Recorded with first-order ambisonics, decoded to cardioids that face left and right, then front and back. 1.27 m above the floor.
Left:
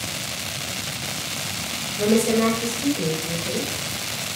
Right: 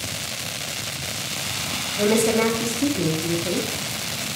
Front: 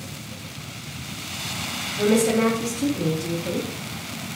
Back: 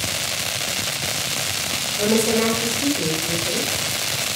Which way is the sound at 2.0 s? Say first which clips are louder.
Right 1 dB, even; 75° right.